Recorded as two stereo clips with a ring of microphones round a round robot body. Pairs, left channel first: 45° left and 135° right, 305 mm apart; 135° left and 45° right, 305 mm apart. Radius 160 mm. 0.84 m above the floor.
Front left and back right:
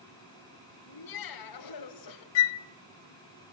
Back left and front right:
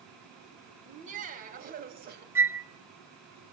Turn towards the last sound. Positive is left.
turn(degrees=40)